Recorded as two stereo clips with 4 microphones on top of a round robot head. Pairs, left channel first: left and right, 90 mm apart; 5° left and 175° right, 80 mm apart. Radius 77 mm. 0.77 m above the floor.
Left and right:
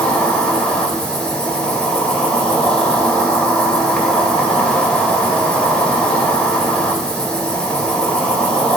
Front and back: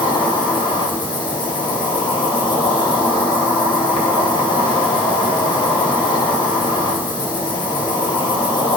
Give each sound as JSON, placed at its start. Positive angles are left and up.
{"t": 0.0, "sound": "an insect", "azimuth_deg": 10, "distance_m": 2.0}